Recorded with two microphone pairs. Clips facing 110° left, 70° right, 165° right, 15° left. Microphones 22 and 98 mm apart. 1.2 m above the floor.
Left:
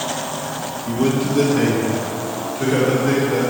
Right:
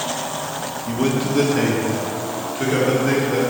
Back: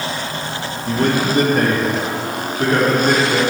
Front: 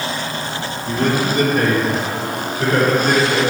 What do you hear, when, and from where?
0.9 s a man speaking: 135° right, 1.9 m; by 3.4 s 130° right, 4.5 m